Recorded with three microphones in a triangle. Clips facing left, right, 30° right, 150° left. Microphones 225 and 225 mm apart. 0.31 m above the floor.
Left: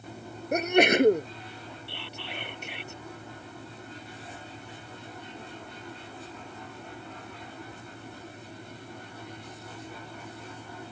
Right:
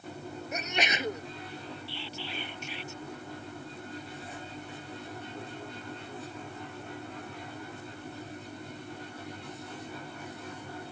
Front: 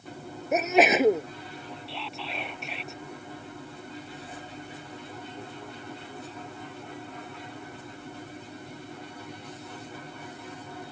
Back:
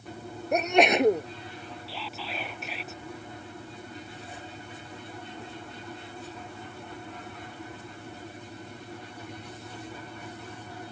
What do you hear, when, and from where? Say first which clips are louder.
0.5 s a sneeze: left 14 dB, front 1 dB; 60° left
1.9 s whispering: right 1 dB, even; 60° left